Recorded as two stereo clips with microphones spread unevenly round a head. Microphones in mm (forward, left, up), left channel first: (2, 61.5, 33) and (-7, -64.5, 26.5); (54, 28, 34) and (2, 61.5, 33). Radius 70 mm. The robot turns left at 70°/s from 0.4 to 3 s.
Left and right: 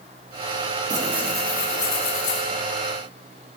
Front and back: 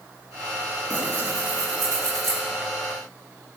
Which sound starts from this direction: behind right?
Tearing paper, at 0.9 s.